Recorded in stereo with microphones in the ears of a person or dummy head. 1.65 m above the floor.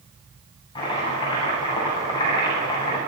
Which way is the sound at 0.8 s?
25° left (ahead or behind).